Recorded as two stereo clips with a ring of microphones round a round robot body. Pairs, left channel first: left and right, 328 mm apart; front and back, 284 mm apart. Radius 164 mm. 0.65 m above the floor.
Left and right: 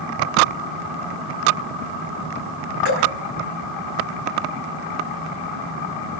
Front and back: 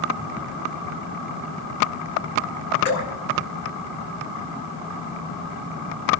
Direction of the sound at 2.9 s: 40° right.